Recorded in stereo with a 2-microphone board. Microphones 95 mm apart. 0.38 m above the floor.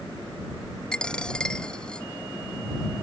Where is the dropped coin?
10° left (ahead or behind).